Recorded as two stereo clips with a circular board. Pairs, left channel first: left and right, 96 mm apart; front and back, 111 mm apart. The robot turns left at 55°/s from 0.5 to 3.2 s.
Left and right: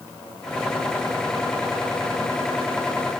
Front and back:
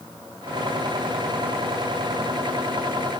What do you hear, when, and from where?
Only background noise.